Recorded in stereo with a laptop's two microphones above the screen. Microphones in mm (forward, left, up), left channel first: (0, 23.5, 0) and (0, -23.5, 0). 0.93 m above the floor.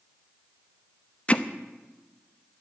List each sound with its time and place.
1.3 s hammering: 25° left (ahead or behind), 0.7 m